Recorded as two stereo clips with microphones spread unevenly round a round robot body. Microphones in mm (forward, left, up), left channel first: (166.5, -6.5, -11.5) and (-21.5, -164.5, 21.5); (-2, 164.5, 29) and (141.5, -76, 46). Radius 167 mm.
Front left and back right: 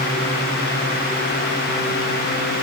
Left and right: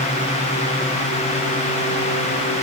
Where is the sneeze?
I don't hear a sneeze.